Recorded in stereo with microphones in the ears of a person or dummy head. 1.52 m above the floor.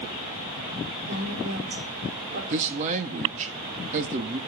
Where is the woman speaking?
50° right (ahead or behind), 4.5 m.